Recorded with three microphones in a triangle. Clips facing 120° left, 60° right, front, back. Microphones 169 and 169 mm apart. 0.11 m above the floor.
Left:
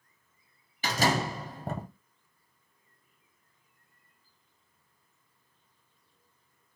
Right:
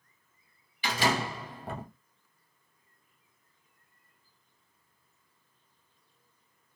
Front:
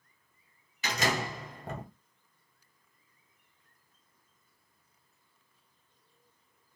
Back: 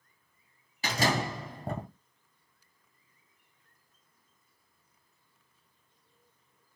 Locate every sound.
0.8 s a door slam: 135° left, 1.6 m